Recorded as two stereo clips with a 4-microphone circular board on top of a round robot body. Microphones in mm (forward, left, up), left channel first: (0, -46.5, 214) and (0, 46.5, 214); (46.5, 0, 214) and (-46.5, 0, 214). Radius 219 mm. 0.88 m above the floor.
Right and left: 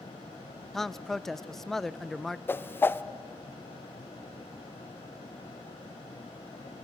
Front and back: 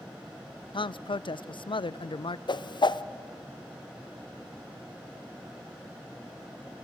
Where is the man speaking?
5° right, 0.7 m.